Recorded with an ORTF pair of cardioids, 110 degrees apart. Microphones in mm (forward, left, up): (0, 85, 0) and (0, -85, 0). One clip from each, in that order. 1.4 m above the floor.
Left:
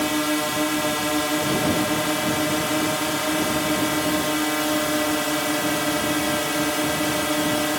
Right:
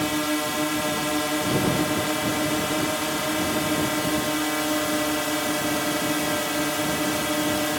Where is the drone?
10° left.